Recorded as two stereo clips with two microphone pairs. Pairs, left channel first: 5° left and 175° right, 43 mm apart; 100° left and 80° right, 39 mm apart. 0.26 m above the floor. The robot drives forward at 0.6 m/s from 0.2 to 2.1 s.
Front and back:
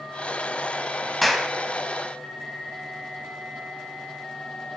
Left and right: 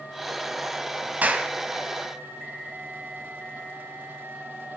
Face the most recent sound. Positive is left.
turn(degrees=-110)